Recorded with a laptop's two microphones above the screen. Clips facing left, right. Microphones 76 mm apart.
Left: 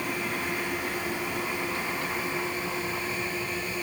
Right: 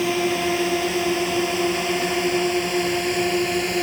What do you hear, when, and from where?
0.0 s a drone: 85° right